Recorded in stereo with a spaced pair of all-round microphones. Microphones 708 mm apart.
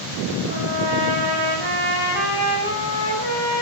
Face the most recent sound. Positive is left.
turn(degrees=15)  # may be behind; listen again after turning